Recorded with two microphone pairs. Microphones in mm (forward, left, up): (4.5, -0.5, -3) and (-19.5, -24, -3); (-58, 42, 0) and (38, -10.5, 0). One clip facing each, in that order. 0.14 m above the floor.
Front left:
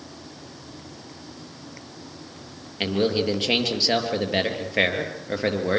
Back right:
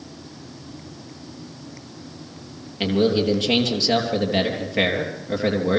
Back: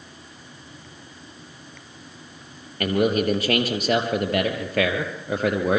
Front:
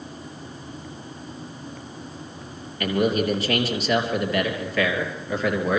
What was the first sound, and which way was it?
A man speaking, 120° left.